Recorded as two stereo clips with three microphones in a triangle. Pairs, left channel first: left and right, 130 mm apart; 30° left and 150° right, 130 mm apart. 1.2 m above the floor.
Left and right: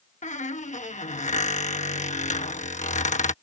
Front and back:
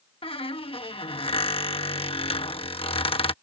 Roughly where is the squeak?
Left.